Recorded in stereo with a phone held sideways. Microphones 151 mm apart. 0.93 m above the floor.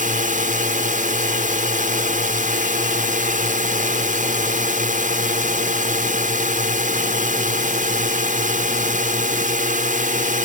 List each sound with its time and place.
0.0 s a drone: 60° right (ahead or behind)